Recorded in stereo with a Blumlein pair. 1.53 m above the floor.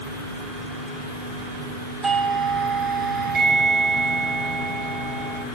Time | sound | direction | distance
2.0 | a doorbell | 10° right | 1.6 m